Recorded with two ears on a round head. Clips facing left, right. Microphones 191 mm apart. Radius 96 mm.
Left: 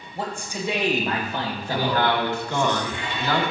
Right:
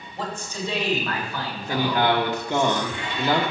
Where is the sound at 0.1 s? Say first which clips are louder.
Left 1 dB; 10° left (ahead or behind), 3 m; by 2.7 s 45° left (ahead or behind), 2 m.